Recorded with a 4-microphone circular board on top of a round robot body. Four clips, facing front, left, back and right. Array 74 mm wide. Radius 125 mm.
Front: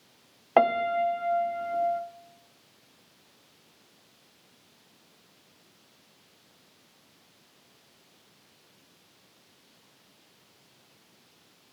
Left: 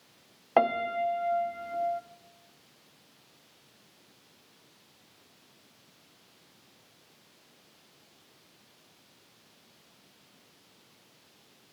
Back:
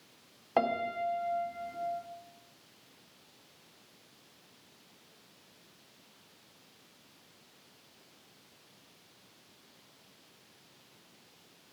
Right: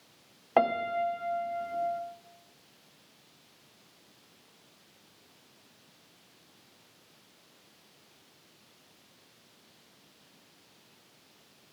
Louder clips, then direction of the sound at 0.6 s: Left 1 dB, front 8 dB; 10° left.